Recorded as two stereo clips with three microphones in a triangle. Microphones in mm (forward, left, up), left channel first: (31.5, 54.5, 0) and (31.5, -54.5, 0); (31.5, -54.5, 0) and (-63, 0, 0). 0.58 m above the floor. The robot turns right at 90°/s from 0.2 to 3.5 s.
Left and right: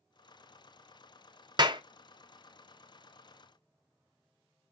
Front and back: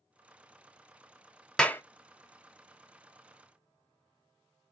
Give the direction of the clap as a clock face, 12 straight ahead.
4 o'clock.